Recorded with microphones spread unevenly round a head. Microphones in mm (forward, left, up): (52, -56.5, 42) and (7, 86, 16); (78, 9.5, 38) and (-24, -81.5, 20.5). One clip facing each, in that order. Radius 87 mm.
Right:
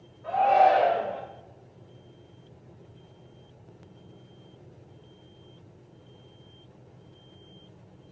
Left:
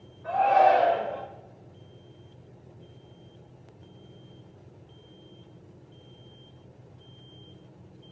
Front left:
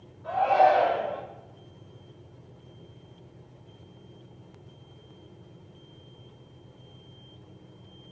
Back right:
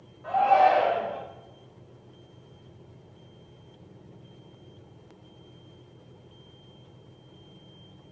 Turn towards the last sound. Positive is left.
turn(degrees=-115)